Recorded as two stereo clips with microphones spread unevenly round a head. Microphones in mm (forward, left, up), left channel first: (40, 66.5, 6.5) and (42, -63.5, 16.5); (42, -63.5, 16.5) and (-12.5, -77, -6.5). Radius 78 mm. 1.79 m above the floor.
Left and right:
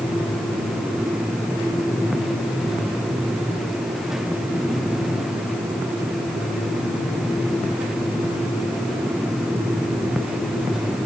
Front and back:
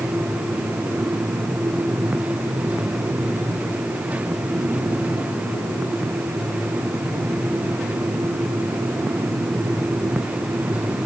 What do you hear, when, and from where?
Only background noise.